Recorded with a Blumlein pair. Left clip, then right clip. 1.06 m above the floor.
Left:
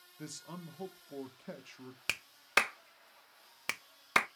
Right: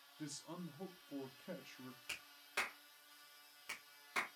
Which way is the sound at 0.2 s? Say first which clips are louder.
Left 3 dB; 15° left.